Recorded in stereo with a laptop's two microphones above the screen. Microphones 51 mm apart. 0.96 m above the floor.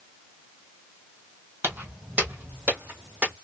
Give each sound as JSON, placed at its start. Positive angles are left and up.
{"t": 1.6, "sound": "footsteps", "side_deg": -45, "distance_m": 1.4}